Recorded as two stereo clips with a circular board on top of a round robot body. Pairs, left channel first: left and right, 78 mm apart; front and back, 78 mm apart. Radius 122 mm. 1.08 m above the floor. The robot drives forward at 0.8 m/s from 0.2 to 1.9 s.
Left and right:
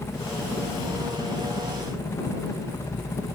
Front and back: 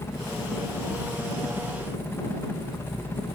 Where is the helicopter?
45° left; by 3.3 s 50° left.